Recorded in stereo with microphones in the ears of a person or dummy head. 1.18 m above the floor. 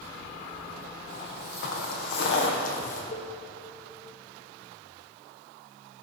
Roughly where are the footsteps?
Left.